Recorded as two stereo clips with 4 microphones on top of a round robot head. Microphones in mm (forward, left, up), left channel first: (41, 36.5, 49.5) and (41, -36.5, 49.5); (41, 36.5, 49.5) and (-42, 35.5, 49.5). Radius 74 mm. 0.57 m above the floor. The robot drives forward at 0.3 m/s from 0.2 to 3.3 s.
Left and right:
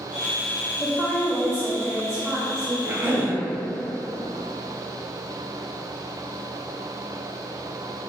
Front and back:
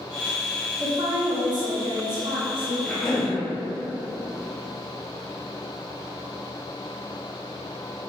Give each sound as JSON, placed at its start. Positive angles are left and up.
{"t": 0.8, "sound": "a woman speaking", "azimuth_deg": 160, "distance_m": 1.0}
{"t": 2.8, "sound": "a cough", "azimuth_deg": -65, "distance_m": 0.8}